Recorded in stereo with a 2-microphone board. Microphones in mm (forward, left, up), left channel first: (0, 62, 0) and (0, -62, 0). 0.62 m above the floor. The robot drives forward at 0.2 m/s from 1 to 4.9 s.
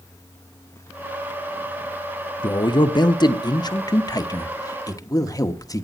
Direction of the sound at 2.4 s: 35° left (ahead or behind).